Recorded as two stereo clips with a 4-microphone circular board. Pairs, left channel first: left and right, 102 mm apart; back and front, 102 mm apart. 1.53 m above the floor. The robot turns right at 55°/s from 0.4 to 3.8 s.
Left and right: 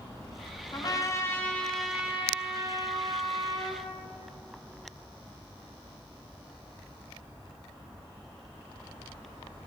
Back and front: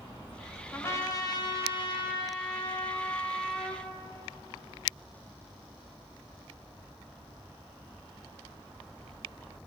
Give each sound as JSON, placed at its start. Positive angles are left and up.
{"t": 0.7, "sound": "a trumpet", "azimuth_deg": 120, "distance_m": 1.0}